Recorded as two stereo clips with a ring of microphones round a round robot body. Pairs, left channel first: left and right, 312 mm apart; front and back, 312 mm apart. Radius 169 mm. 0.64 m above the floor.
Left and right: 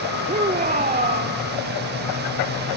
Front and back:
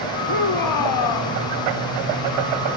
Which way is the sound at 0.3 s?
25° right.